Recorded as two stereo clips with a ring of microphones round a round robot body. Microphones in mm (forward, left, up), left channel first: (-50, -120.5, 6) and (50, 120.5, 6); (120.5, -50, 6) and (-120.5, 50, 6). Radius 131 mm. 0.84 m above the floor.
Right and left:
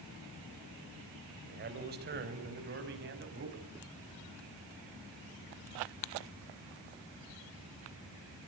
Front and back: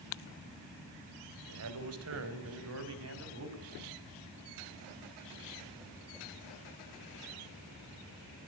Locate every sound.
1.4 s a man speaking: 125° left, 3.5 m; by 3.7 s 120° left, 5.5 m